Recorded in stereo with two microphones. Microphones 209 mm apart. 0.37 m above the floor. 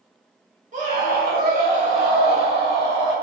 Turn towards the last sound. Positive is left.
turn(degrees=-20)  # may be behind; listen again after turning